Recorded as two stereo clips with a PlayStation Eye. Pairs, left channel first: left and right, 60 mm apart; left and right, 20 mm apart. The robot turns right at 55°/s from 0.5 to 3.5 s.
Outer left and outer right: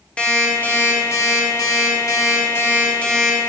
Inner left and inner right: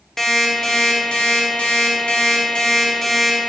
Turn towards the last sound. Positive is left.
turn(degrees=-175)